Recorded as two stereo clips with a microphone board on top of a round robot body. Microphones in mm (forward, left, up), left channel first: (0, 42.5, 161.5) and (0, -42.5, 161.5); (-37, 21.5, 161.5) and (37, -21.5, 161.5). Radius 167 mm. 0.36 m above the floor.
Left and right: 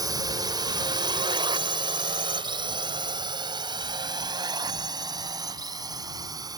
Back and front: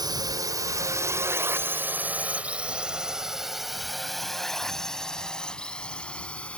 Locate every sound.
0.0 s a drone: 60° right; by 6.6 s 135° right